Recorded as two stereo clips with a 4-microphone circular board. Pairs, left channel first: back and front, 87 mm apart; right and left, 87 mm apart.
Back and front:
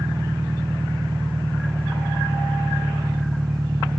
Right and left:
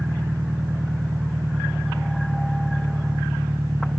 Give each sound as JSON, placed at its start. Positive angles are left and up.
{"t": 0.0, "sound": "an engine running", "azimuth_deg": 35}